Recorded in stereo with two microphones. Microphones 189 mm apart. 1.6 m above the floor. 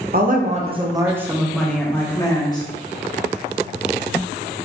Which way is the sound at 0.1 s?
50° right (ahead or behind).